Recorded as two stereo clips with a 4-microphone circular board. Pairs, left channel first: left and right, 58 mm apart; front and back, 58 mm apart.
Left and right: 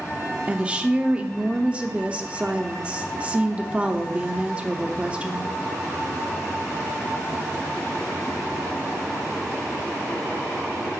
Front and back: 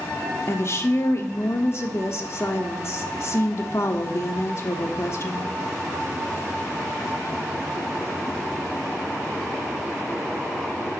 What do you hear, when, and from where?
0.5 s a woman speaking: 25° right, 1.0 m